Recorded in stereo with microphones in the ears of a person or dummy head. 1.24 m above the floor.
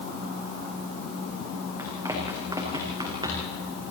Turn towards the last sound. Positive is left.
turn(degrees=-25)  # may be behind; listen again after turning